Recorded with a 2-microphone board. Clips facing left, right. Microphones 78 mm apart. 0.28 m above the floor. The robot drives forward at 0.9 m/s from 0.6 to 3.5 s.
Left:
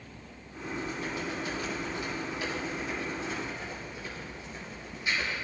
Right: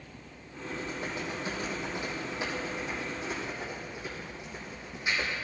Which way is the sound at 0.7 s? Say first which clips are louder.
Left 1 dB; 30° right (ahead or behind).